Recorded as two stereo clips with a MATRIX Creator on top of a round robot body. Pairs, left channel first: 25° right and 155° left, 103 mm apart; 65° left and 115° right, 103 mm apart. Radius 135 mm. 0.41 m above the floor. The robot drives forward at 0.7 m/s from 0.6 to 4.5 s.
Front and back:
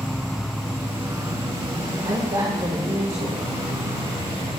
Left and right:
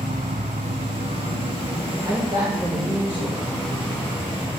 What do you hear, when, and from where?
0.0 s an insect: 110° right, 0.9 m; by 4.6 s 165° right, 3 m
2.0 s a woman speaking: 155° right, 2 m; by 3.5 s 165° right, 3 m